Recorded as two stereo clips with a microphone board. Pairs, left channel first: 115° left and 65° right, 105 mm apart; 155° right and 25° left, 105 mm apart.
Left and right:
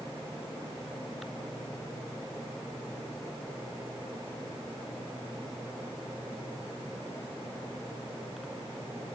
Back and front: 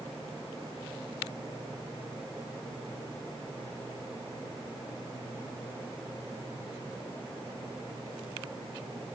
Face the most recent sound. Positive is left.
No sound to turn to.